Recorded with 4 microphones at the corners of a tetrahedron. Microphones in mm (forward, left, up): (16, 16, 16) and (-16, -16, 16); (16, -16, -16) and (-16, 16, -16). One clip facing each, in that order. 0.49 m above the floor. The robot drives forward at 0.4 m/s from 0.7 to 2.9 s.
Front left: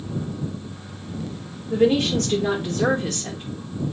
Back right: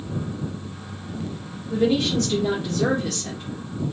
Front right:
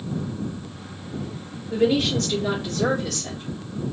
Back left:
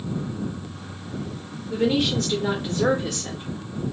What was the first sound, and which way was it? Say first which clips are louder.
A woman speaking: front left 2 dB, front right 1 dB; 45° left.